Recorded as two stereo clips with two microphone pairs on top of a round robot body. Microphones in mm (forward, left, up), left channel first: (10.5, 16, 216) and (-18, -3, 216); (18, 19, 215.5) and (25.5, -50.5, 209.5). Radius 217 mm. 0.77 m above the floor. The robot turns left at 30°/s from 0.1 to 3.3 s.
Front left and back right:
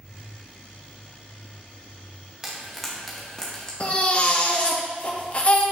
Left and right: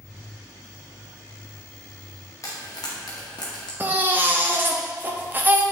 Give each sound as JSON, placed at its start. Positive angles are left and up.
{"t": 2.4, "sound": "frying", "azimuth_deg": 135, "distance_m": 0.7}
{"t": 3.8, "sound": "a baby crying", "azimuth_deg": -20, "distance_m": 0.7}